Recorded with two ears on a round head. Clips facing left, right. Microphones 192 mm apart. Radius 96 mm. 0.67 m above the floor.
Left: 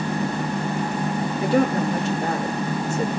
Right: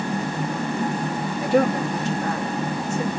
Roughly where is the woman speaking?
Left.